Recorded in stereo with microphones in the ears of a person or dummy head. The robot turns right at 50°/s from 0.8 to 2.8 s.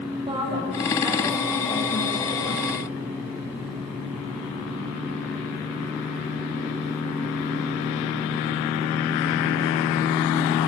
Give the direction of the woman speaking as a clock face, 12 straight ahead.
1 o'clock.